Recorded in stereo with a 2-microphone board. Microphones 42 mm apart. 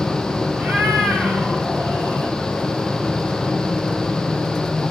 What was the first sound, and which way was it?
A cat meowing, 40° right (ahead or behind).